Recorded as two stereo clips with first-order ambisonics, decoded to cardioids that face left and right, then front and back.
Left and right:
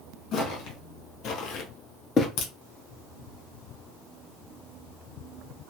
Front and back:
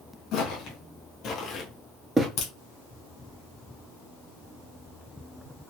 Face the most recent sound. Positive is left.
turn(degrees=45)